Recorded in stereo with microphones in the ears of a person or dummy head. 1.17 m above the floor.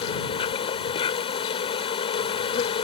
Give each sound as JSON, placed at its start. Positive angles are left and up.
{"t": 0.0, "sound": "an insect", "side_deg": 30}